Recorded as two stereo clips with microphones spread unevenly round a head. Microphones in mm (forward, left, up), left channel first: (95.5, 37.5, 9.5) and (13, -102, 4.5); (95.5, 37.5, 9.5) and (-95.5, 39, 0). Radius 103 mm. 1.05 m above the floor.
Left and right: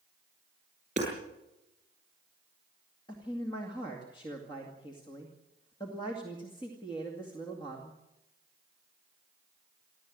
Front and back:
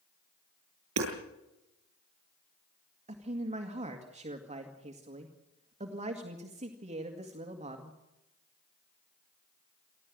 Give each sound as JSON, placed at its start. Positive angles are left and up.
{"t": 1.0, "sound": "hammering", "azimuth_deg": 175, "distance_m": 8.5}
{"t": 3.1, "sound": "a man speaking", "azimuth_deg": 125, "distance_m": 2.0}